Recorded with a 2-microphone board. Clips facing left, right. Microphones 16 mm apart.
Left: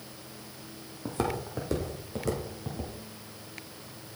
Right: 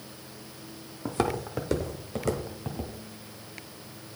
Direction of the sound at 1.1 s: 20° right (ahead or behind).